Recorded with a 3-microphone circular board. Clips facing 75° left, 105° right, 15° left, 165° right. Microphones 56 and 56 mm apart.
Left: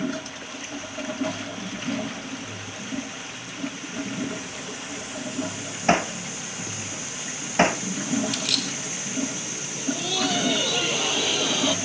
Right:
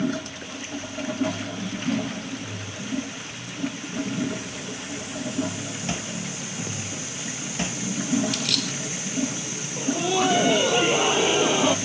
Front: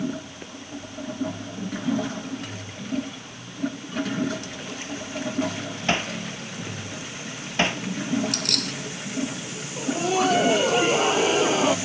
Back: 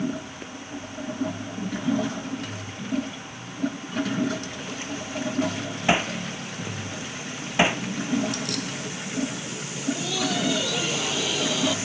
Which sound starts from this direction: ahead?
Keys jangling, at 8.3 s.